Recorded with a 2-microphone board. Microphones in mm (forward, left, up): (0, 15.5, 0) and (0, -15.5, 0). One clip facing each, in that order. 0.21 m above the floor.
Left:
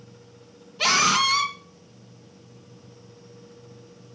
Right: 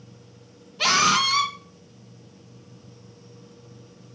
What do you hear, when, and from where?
0.8 s a scream: 5° right (ahead or behind), 2.5 m